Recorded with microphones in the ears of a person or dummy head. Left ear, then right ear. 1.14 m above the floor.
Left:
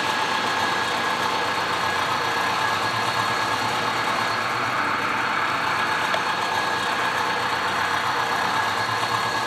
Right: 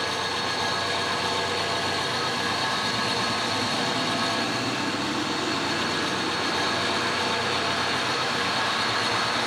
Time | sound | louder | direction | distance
0.0 | an engine running | left 4 dB | 45° left (ahead or behind) | 8.5 m